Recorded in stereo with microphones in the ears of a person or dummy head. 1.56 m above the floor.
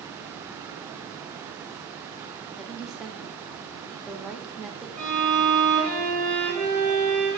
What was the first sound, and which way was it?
A woman speaking, 5° right (ahead or behind).